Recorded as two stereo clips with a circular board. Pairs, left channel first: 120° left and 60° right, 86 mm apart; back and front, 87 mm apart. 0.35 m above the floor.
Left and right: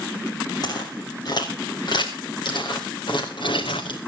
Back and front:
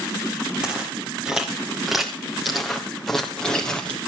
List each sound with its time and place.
0.6 s footsteps: 80° left, 4.5 m; by 4.0 s 100° left, 3 m